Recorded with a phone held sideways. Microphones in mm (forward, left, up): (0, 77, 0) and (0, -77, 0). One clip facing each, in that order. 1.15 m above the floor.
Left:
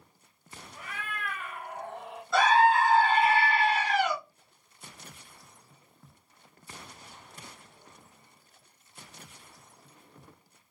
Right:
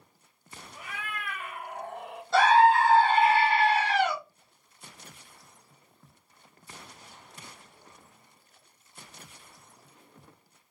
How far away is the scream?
About 2 m.